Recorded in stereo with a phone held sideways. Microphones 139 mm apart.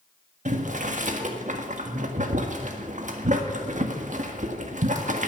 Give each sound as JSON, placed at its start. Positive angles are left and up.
{"t": 0.5, "sound": "boiling", "side_deg": -65, "distance_m": 1.6}